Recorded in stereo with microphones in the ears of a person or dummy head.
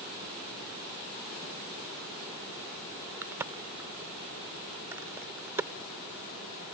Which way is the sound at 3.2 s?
10° right (ahead or behind).